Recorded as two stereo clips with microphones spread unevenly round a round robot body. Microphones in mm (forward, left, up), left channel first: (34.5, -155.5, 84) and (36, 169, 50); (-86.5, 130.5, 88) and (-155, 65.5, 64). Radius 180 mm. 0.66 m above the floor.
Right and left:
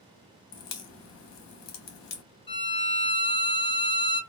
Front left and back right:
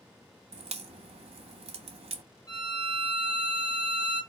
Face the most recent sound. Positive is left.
turn(degrees=-15)